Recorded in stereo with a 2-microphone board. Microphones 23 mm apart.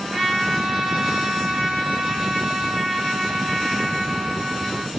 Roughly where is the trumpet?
Right.